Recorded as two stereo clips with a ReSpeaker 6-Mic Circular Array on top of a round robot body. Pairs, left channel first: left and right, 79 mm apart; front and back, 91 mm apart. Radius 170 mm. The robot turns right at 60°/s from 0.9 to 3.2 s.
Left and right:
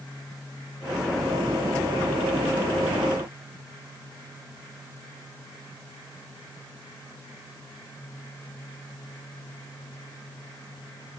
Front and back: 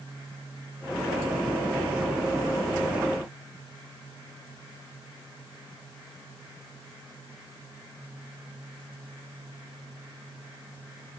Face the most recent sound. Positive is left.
No sound to turn to.